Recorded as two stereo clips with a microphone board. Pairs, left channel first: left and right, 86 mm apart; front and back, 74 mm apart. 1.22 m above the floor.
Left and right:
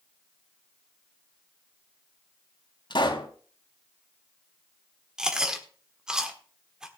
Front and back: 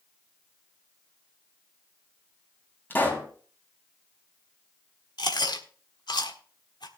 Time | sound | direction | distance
2.9 | a pop | 65° left | 2.5 m
5.2 | chewing | 10° right | 1.4 m